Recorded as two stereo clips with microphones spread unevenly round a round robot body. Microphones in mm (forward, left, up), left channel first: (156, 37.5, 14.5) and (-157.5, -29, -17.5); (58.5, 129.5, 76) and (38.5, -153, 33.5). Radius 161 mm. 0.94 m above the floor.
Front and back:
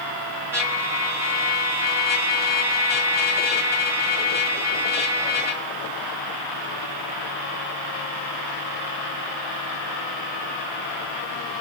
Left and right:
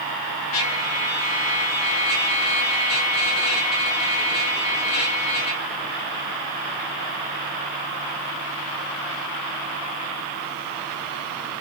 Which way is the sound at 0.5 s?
110° left.